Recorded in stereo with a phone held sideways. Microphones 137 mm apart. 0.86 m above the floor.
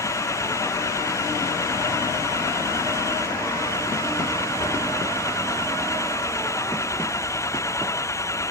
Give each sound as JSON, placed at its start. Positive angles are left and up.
{"t": 0.0, "sound": "an engine running", "side_deg": 20}